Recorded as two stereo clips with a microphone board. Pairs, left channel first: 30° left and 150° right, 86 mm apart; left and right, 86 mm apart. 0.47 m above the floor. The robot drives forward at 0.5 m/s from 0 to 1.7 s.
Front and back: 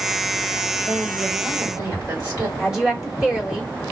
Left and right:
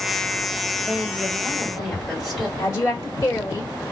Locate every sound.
0.8 s a woman speaking: straight behind, 2.5 m
2.6 s a woman speaking: 130° left, 1.5 m